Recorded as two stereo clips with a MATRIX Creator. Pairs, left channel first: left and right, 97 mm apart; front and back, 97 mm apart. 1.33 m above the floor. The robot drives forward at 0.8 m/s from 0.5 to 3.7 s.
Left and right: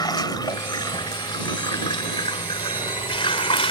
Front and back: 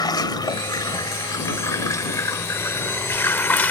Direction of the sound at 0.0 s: 45° left.